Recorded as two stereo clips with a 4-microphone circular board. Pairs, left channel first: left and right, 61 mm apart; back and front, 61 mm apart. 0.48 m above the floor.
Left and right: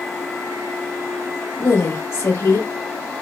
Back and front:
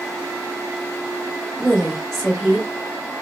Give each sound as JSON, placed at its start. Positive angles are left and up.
{"t": 1.6, "sound": "a woman speaking", "azimuth_deg": 95, "distance_m": 1.8}